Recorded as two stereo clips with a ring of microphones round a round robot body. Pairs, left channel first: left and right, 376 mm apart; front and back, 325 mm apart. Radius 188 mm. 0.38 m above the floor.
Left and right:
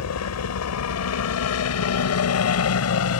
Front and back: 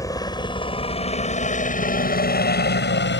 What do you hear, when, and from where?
0.0 s a helicopter: 75° left; by 3.2 s 45° left